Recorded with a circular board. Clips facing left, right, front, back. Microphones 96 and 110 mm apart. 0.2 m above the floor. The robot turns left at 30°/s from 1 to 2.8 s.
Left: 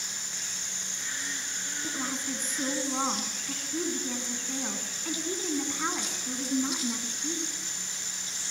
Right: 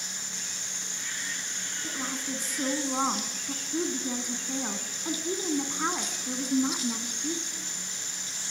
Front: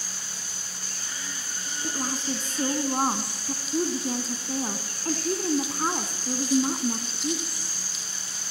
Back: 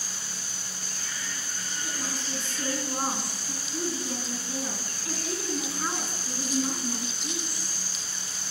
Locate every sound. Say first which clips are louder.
1.8 s a woman speaking: left 1 dB, front 7 dB; 10° left, 1.8 m; by 7.5 s 20° right, 1.8 m